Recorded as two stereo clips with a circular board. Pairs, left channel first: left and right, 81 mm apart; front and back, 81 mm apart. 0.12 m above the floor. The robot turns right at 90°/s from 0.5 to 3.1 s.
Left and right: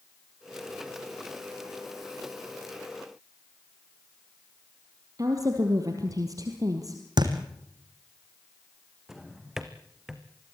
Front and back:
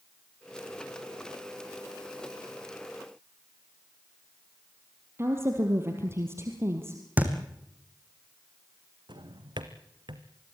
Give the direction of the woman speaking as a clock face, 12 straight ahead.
4 o'clock.